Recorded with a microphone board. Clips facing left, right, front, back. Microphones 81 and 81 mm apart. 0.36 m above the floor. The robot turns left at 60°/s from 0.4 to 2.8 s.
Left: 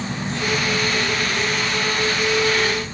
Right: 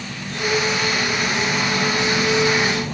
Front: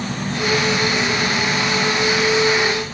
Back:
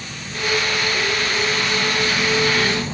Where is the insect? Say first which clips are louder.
Left 2 dB, front 6 dB; 25° left, 1.5 m; by 2.9 s 120° right, 1.5 m.